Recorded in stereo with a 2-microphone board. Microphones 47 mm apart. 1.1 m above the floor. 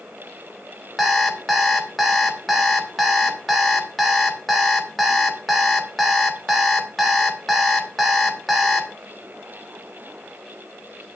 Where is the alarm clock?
Centre (ahead or behind), 1.7 m.